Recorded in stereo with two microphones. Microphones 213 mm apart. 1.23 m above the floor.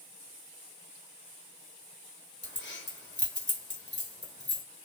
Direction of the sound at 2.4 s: 55° left (ahead or behind).